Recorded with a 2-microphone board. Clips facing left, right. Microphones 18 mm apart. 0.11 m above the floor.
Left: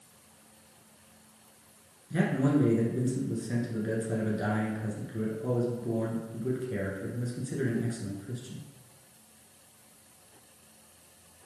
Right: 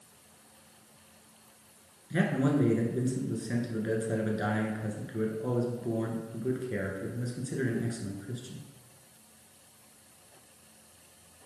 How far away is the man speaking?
About 1.2 m.